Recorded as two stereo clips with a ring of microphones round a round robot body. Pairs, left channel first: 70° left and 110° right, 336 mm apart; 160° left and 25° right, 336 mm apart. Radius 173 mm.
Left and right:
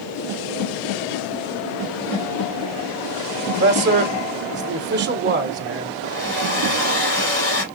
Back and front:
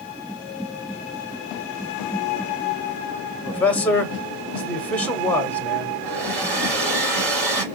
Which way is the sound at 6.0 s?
5° left.